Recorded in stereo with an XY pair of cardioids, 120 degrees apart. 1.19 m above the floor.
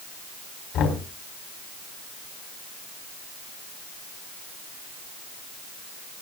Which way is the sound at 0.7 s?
60° left.